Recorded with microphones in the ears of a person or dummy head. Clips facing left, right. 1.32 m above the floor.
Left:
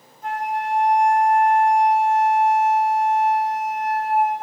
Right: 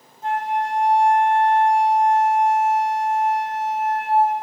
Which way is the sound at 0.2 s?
30° right (ahead or behind).